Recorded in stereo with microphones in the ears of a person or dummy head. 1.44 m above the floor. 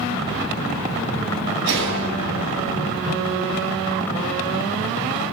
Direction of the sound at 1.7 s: 70° right (ahead or behind).